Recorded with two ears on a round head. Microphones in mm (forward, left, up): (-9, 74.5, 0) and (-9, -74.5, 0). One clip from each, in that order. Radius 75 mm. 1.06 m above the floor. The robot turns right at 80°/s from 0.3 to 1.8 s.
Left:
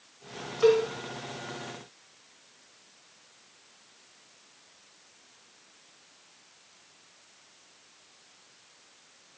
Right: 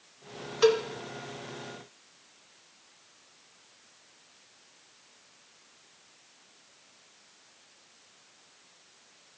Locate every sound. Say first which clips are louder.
0.6 s a cowbell: left 1 dB; 50° right (ahead or behind), 1.4 m; by 0.9 s 65° right (ahead or behind), 1.4 m